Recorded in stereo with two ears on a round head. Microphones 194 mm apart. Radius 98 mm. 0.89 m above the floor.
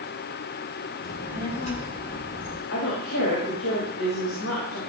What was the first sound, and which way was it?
A child speaking, 45° left (ahead or behind).